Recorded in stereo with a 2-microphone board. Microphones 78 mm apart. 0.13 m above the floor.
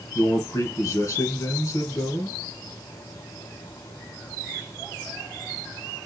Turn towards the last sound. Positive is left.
turn(degrees=40)  # may be behind; listen again after turning